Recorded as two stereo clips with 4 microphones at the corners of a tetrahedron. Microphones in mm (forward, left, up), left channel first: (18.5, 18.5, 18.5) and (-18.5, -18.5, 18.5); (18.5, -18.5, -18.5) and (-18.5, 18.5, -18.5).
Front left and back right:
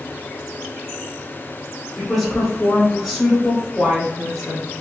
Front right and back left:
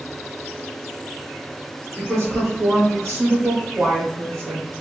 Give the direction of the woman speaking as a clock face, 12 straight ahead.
8 o'clock.